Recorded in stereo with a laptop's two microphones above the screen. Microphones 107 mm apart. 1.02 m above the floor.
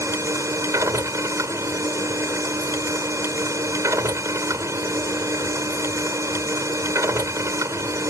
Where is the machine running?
30° right (ahead or behind).